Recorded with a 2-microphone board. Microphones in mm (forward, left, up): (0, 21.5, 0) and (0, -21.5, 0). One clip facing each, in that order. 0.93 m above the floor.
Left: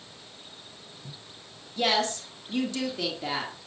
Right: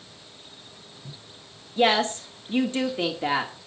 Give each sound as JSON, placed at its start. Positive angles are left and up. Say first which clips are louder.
{"t": 1.8, "sound": "a woman speaking", "louder": "right 5 dB", "side_deg": -35, "distance_m": 2.0}